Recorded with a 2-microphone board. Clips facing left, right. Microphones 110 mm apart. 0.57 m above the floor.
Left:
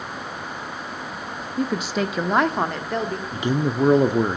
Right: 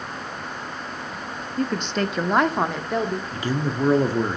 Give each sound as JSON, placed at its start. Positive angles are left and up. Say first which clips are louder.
{"t": 1.6, "sound": "a woman speaking", "louder": "left 1 dB", "side_deg": 10, "distance_m": 0.6}
{"t": 3.3, "sound": "a man speaking", "louder": "left 3 dB", "side_deg": 20, "distance_m": 0.8}